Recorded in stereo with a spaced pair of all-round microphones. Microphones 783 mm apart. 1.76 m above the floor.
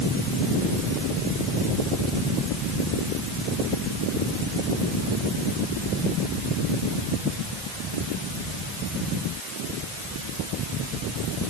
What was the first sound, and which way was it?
Only background noise.